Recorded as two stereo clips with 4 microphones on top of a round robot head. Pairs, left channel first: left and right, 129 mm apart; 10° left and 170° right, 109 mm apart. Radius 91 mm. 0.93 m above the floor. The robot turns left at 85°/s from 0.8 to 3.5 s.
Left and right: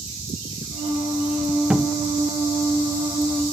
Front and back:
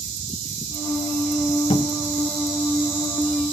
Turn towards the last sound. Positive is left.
turn(degrees=-160)